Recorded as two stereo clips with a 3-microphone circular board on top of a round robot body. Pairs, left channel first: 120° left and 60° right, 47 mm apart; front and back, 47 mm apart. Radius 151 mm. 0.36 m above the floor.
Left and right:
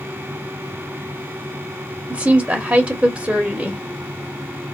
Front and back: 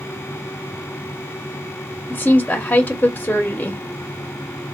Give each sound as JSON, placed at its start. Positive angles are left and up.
{"t": 2.1, "sound": "a woman speaking", "azimuth_deg": -25, "distance_m": 1.0}